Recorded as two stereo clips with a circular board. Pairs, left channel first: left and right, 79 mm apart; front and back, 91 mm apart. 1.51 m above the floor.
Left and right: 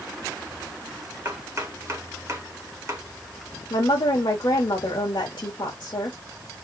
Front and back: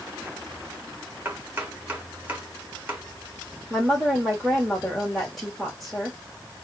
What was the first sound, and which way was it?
Chopping, 120° right.